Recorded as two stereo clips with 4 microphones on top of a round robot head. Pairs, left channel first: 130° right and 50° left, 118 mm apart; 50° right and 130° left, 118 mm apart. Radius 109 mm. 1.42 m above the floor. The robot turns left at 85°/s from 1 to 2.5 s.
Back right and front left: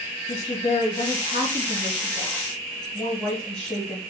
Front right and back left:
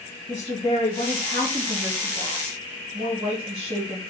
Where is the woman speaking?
85° right, 1.7 m; by 4.0 s 150° left, 1.7 m.